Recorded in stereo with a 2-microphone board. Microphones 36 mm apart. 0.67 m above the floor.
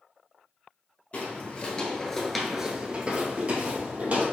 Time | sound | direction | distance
1.1 | footsteps | 40° left (ahead or behind) | 0.9 m